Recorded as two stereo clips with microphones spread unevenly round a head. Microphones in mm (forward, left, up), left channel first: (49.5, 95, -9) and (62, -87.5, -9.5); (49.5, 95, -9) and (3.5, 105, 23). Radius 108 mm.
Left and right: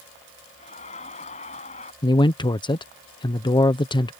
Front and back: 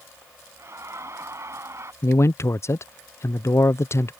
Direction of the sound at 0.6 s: 155° left.